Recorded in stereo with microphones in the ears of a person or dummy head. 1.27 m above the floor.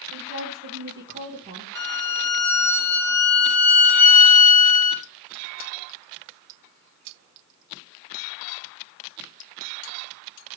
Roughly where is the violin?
Centre.